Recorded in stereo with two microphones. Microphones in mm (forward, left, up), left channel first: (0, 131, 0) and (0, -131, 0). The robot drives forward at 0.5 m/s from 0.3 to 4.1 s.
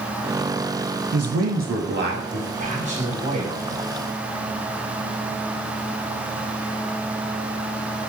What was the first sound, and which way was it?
A man speaking, 65° right (ahead or behind).